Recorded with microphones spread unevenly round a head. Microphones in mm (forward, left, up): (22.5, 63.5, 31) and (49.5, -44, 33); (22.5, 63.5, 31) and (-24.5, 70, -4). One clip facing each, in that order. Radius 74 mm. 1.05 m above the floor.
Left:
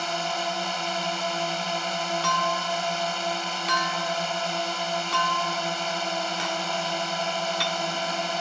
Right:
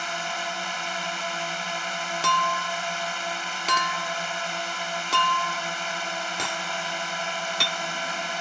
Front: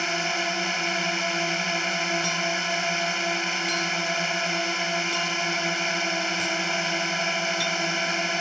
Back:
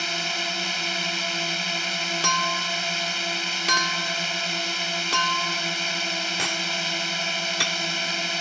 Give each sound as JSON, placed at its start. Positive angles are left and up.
{"t": 0.0, "sound": "a drone", "azimuth_deg": 40}
{"t": 2.2, "sound": "a clink", "azimuth_deg": -135}